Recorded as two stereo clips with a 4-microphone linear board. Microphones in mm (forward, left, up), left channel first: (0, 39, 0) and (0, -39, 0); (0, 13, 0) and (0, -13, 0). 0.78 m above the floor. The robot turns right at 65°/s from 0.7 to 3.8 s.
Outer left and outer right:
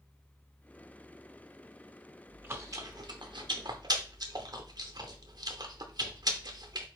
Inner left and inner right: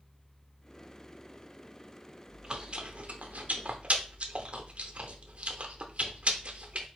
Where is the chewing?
15° right (ahead or behind), 0.7 m; by 6.9 s 60° right (ahead or behind), 0.7 m.